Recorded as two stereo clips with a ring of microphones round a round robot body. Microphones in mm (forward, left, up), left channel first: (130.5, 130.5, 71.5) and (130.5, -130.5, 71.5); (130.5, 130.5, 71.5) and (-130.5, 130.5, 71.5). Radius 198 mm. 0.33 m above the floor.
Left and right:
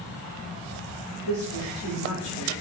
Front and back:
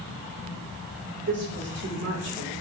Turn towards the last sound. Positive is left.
turn(degrees=-145)